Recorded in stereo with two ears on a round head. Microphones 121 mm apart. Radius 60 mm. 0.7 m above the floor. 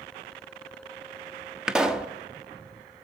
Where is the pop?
5° right (ahead or behind), 0.9 m.